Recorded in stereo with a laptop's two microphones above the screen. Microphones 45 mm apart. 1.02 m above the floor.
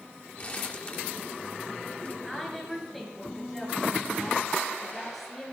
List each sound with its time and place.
0.4 s crumpling: 35° left (ahead or behind), 1.3 m
2.2 s a woman speaking: 5° left (ahead or behind), 9.5 m